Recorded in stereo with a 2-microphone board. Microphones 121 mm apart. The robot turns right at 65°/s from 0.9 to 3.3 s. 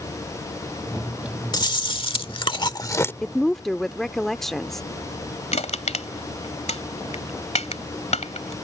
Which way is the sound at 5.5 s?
70° left (ahead or behind).